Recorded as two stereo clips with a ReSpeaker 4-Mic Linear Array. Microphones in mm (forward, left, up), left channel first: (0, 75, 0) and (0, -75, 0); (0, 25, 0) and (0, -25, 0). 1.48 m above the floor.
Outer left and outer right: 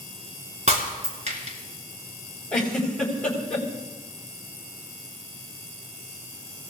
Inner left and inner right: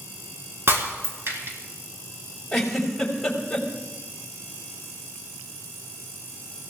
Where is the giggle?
5° left (ahead or behind), 4 m.